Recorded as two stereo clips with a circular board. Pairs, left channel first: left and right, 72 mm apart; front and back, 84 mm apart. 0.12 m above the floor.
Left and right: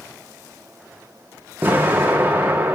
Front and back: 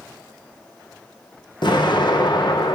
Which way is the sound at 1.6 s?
25° right.